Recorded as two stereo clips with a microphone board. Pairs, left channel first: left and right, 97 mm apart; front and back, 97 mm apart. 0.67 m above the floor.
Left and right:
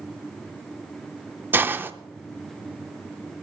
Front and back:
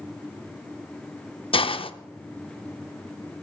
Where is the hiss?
20° right, 0.5 m.